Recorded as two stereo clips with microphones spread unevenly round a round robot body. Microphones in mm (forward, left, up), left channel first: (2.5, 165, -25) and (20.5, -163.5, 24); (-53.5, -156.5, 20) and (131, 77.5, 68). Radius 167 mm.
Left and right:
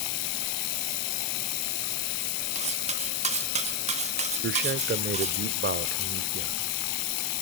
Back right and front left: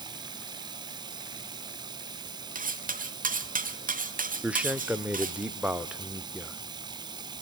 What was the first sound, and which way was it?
Running water, 130° left.